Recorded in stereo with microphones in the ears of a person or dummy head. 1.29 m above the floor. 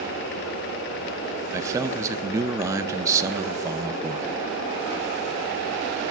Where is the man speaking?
20° right (ahead or behind), 0.5 m.